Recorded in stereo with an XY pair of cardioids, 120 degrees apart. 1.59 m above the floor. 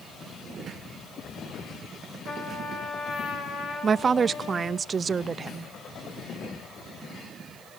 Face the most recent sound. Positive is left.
turn(degrees=-35)